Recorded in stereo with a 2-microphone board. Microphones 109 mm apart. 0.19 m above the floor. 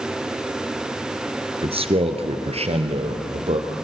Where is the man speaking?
65° right (ahead or behind), 2.5 m; by 3.7 s 75° right (ahead or behind), 4 m.